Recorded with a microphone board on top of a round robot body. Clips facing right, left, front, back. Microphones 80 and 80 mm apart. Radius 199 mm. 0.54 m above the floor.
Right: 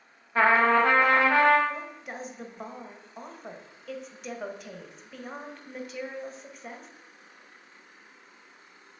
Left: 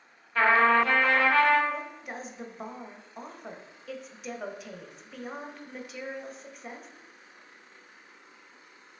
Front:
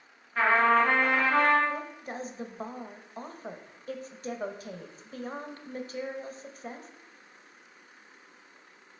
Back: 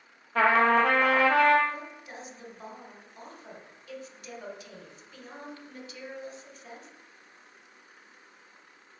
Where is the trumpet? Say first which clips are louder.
Right 1 dB, back 1 dB; 160° right, 1.1 m.